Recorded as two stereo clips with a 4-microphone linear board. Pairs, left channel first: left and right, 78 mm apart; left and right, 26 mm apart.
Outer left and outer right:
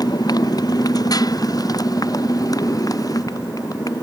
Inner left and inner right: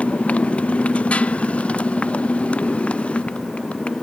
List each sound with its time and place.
0.0 s a motorcycle: 55° left (ahead or behind); by 4.0 s 50° left (ahead or behind)